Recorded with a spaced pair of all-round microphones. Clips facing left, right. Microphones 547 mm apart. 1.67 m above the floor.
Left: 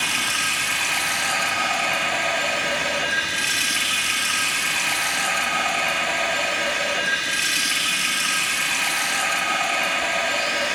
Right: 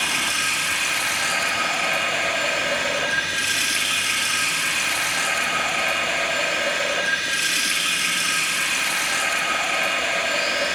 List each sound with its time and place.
0.0 s running water: 20° left (ahead or behind), 1.5 m